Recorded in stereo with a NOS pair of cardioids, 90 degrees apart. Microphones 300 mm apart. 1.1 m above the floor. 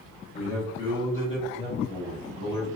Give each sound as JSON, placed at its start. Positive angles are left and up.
{"t": 0.3, "sound": "a man speaking", "azimuth_deg": 60, "distance_m": 1.3}